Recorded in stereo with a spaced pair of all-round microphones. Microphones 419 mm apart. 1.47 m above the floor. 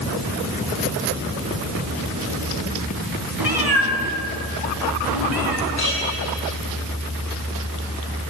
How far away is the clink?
About 10 m.